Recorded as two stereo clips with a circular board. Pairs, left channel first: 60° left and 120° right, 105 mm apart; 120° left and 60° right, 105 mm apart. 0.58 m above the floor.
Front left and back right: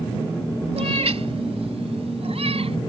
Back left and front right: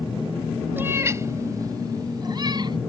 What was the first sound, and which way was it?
A cat meowing, 130° right.